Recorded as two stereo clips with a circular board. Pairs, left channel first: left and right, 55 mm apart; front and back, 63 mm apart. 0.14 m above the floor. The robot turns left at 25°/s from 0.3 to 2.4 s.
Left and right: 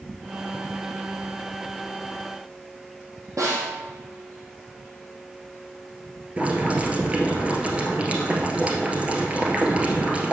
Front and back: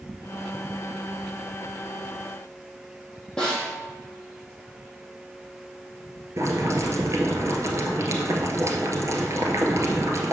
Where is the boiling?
155° right, 1.4 m.